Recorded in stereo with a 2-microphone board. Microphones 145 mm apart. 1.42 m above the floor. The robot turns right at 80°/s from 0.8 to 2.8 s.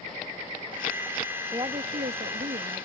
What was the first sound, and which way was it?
A woman speaking, 150° right.